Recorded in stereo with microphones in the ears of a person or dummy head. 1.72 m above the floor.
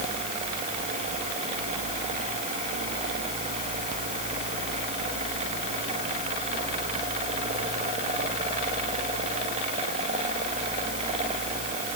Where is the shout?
I don't hear a shout.